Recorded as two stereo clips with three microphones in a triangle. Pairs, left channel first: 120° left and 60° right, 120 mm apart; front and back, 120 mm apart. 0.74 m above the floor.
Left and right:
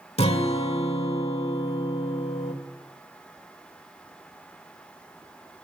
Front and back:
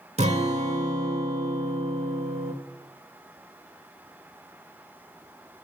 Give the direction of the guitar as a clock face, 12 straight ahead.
7 o'clock.